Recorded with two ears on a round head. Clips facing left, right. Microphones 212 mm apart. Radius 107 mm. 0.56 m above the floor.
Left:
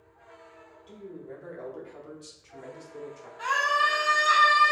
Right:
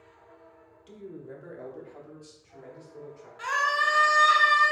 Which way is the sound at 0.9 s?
30° right (ahead or behind).